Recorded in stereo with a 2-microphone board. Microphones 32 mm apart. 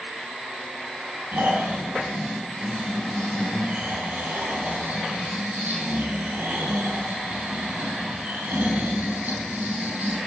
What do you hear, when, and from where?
1.3 s snoring: 65° right (ahead or behind), 4 m